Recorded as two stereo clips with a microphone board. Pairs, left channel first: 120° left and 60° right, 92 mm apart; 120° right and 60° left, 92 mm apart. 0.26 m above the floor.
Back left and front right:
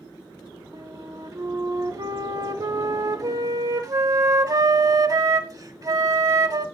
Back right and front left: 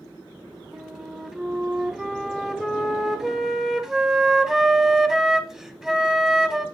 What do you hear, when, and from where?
0.7 s a flute: 25° right, 1.1 m